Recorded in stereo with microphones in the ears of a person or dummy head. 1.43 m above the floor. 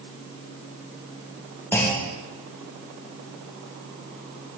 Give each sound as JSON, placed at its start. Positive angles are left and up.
{"t": 1.7, "sound": "a clunk", "side_deg": 10, "distance_m": 0.7}